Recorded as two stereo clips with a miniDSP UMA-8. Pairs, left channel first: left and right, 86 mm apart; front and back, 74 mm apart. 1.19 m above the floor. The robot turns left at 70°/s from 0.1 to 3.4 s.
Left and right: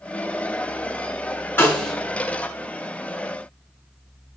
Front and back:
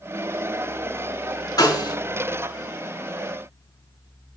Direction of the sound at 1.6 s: 25° left.